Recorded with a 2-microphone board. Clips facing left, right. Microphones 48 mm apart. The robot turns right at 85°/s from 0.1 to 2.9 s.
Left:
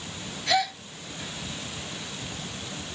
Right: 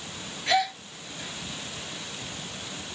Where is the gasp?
25° right (ahead or behind), 0.9 m; by 0.8 s centre (ahead or behind), 0.9 m.